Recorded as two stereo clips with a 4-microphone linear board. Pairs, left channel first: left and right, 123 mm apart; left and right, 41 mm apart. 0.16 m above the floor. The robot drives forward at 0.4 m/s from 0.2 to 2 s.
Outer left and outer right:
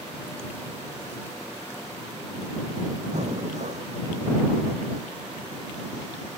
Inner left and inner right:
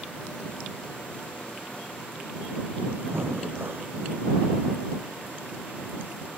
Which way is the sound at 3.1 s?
70° right (ahead or behind).